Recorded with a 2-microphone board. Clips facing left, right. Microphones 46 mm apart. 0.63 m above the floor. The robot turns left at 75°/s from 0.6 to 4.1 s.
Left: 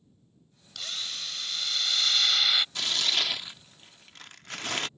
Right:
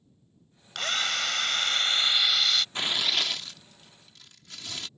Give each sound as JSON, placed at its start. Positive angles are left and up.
{"t": 0.8, "sound": "a drill", "azimuth_deg": -55}
{"t": 2.8, "sound": "tearing paper", "azimuth_deg": -145}